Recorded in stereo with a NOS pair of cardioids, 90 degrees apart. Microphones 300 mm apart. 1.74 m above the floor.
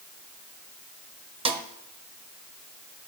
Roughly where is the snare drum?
Ahead.